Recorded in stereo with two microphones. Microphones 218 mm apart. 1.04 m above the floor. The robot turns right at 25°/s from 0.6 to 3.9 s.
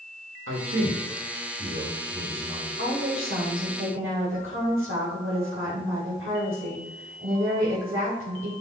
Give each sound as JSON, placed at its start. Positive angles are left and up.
{"t": 0.5, "sound": "a man speaking", "azimuth_deg": -70, "distance_m": 2.0}
{"t": 2.8, "sound": "a woman speaking", "side_deg": -75, "distance_m": 3.0}